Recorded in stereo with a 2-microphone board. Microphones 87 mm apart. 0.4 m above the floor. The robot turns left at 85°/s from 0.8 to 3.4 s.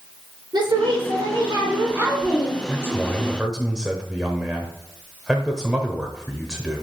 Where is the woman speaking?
60° right, 3.5 m; by 2.6 s 145° left, 3.5 m.